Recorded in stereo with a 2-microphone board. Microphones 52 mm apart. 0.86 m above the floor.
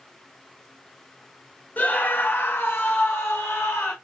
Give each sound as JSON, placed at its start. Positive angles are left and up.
{"t": 1.8, "sound": "a scream", "side_deg": 30, "distance_m": 0.9}